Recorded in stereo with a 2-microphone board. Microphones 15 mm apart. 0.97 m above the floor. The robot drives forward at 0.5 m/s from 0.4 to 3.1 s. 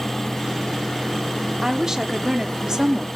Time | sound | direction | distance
1.6 | a woman speaking | 35° right (ahead or behind) | 2 m